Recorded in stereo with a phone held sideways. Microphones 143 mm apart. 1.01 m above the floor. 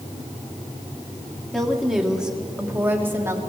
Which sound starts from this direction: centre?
A woman speaking, at 1.5 s.